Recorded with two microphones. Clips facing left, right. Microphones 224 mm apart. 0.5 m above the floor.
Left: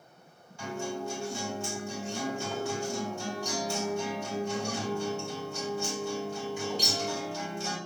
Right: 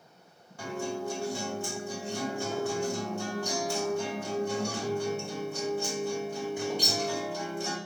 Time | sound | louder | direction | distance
0.6 | a guitar | right 1 dB | 55° right (ahead or behind) | 2.5 m